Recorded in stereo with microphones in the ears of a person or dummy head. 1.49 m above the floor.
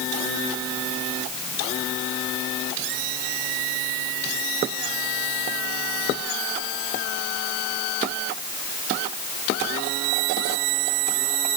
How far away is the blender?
No blender in this recording.